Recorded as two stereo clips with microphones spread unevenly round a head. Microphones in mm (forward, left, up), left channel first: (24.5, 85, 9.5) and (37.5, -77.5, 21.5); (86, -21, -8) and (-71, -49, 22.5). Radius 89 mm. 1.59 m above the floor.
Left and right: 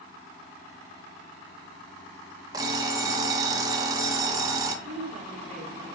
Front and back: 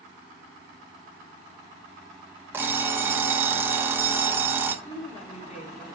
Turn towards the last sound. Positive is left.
turn(degrees=-40)